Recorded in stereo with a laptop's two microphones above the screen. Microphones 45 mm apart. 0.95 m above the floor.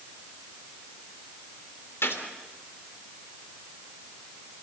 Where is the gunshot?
80° left, 3 m.